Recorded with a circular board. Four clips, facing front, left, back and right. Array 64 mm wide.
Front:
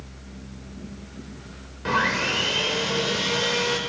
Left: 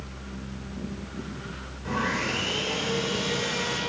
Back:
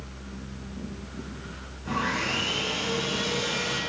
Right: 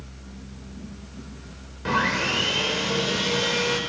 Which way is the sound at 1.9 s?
35° right.